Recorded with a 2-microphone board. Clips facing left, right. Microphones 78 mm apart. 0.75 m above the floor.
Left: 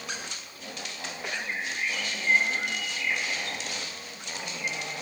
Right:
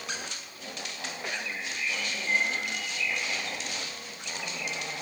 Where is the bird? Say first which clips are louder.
Left 3 dB; 55° left (ahead or behind), 1.3 m.